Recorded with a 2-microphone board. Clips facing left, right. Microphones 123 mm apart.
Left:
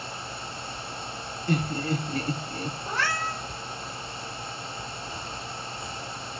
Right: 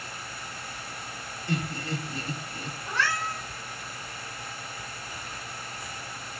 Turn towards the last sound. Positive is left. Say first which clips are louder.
# right 1 dB
turn(degrees=40)  # may be behind; listen again after turning